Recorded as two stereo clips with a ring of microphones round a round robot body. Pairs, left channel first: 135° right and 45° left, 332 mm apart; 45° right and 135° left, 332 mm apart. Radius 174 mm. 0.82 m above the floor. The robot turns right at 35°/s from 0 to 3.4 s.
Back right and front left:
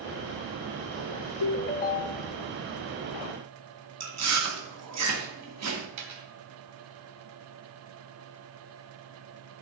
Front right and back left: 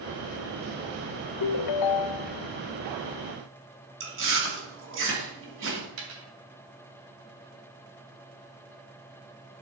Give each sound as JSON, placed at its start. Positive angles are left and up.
{"t": 1.4, "sound": "a ringtone", "azimuth_deg": -85, "distance_m": 0.5}
{"t": 4.0, "sound": "chewing", "azimuth_deg": 85, "distance_m": 2.5}
{"t": 6.0, "sound": "a dropped coin", "azimuth_deg": 85, "distance_m": 2.5}